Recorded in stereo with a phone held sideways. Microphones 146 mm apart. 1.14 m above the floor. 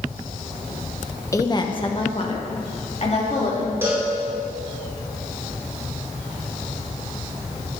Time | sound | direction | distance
1.3 | a woman speaking | 20° left (ahead or behind) | 0.9 m
3.8 | a cowbell | 15° right (ahead or behind) | 4.5 m